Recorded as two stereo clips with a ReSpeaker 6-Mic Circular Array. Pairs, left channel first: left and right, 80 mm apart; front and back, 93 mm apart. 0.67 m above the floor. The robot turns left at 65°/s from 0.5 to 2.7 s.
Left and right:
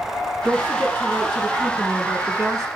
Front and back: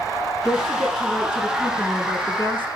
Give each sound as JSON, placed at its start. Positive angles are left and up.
{"t": 0.4, "sound": "a woman speaking", "azimuth_deg": -45, "distance_m": 6.0}